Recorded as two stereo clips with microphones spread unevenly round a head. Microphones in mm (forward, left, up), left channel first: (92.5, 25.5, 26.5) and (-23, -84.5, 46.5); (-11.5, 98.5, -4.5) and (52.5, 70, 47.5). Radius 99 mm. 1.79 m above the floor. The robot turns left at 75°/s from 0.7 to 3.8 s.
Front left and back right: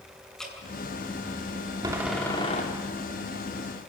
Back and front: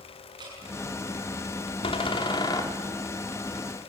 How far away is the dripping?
About 8 m.